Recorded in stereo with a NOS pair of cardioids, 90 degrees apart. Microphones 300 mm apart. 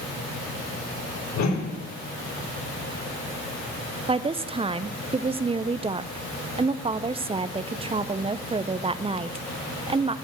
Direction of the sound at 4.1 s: 20° right.